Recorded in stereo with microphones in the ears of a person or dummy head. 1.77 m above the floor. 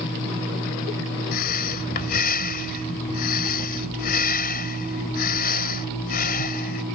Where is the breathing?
55° left (ahead or behind).